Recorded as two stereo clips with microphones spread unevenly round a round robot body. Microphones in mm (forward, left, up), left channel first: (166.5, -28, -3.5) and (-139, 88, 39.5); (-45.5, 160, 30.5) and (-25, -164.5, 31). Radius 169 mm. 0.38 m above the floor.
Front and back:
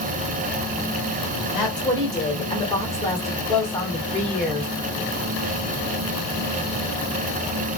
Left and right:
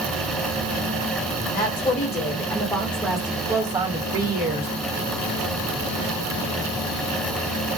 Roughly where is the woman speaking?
Ahead left.